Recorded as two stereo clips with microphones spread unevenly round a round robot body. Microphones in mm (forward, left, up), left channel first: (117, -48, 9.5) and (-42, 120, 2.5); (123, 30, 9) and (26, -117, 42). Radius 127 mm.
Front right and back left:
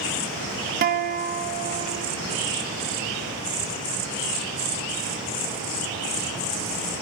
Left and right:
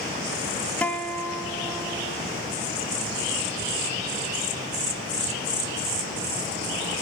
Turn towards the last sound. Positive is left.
turn(degrees=125)